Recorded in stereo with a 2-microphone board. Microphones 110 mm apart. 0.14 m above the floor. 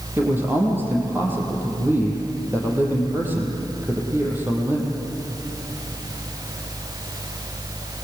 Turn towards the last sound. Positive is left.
turn(degrees=-20)  # may be behind; listen again after turning